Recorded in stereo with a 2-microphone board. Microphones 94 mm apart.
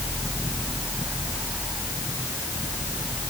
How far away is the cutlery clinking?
I don't hear cutlery clinking.